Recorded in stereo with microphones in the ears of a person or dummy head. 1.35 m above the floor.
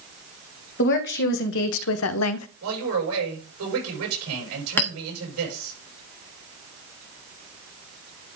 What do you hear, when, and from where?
0.8 s a woman speaking: 55° left (ahead or behind), 1.5 m; by 2.5 s 80° left, 0.7 m
2.6 s a man speaking: 85° right, 6.5 m
4.8 s a clink: 15° left (ahead or behind), 1.1 m